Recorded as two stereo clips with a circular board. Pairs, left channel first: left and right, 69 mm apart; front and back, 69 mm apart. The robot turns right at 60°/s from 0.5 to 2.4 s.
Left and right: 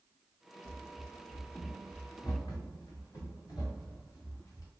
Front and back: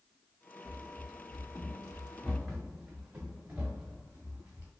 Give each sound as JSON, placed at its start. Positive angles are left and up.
{"t": 0.7, "sound": "running footsteps", "azimuth_deg": -50, "distance_m": 0.6}